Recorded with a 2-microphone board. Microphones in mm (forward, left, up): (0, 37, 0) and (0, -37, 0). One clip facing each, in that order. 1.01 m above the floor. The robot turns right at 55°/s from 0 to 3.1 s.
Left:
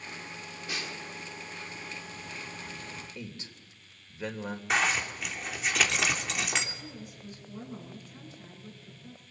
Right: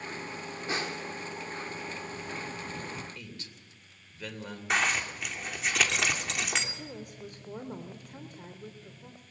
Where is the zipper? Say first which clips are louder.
Even; centre (ahead or behind), 2.5 m.